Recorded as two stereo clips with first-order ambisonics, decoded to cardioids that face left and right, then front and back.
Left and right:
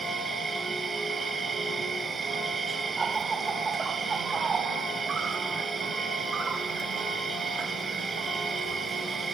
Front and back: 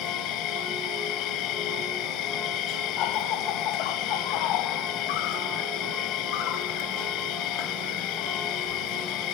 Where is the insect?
20° right, 0.9 m.